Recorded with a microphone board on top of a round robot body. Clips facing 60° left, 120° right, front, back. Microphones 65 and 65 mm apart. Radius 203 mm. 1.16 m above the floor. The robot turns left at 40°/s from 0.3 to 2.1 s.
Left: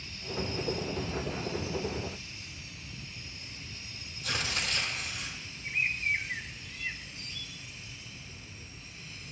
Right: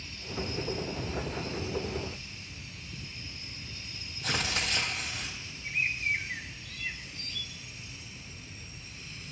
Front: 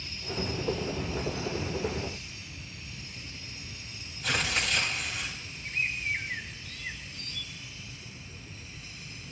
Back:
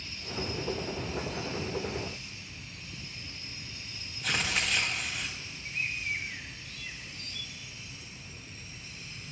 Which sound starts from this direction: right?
Tearing paper, at 4.2 s.